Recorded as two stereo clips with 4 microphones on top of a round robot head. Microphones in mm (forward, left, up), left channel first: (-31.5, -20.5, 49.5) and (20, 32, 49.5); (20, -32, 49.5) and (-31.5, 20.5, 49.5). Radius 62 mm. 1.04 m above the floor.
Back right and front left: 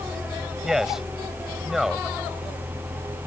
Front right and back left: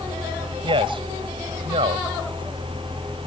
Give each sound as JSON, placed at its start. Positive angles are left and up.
{"t": 0.6, "sound": "a man speaking", "azimuth_deg": 130}